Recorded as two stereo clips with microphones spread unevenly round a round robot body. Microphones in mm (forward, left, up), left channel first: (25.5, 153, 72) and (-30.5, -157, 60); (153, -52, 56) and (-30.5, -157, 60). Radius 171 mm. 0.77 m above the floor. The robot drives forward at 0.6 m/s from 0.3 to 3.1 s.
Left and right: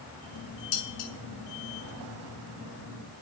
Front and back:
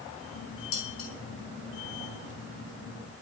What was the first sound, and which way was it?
Dishes clattering, 65° left.